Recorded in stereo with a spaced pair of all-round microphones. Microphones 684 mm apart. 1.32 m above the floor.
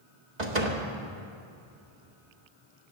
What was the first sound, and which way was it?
A door slam, 75° right (ahead or behind).